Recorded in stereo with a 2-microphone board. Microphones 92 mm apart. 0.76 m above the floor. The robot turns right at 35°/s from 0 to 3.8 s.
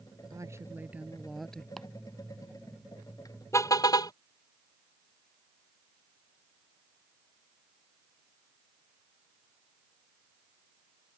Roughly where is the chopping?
Centre.